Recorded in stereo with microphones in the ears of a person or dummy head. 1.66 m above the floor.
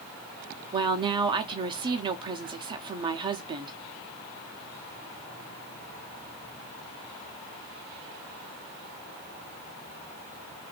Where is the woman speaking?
25° right (ahead or behind), 0.7 m.